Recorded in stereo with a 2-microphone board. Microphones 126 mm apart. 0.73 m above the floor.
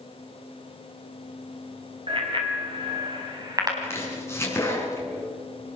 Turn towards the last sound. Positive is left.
turn(degrees=20)  # may be behind; listen again after turning